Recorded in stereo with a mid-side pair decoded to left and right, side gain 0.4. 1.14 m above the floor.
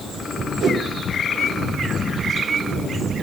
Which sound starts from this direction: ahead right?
A whoosh, at 0.6 s.